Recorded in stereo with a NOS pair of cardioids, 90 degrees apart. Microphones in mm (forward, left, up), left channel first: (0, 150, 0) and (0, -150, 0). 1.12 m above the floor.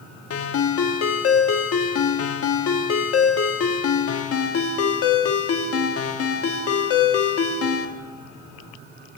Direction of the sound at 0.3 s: 50° left.